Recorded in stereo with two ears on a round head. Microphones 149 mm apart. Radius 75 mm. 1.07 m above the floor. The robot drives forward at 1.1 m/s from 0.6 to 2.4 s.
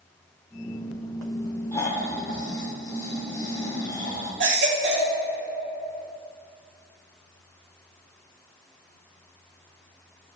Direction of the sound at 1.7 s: 20° left (ahead or behind).